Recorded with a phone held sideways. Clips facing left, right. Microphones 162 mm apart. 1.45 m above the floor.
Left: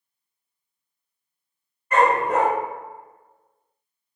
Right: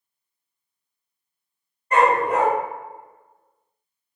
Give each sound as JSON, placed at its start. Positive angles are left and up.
{"t": 1.9, "sound": "a dog barking", "side_deg": -35, "distance_m": 1.3}